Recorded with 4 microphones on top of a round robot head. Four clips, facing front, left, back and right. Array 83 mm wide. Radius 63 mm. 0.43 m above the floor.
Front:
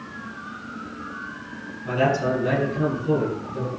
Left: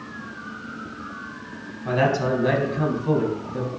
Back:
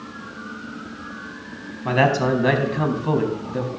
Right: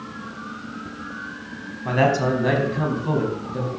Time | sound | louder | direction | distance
1.9 | a man speaking | right 2 dB, back 3 dB | 170° right | 4 m